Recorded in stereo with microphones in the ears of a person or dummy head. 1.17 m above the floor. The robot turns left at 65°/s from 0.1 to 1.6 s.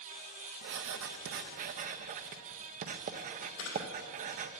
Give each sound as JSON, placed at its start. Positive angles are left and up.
{"t": 0.6, "sound": "writing", "side_deg": -55, "distance_m": 0.5}
{"t": 3.6, "sound": "a camera shutter", "side_deg": 80, "distance_m": 2.0}